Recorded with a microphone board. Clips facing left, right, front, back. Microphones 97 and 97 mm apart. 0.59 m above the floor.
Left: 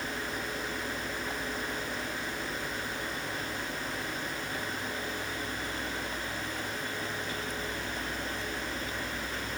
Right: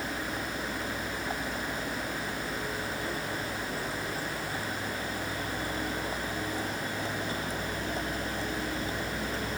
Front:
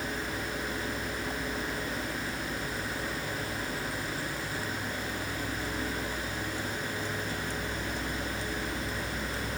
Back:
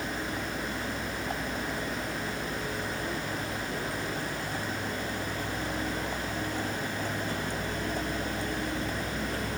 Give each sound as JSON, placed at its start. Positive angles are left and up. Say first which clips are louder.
{"t": 0.0, "sound": "a vehicle", "louder": "right 2 dB, back 1 dB", "azimuth_deg": -150}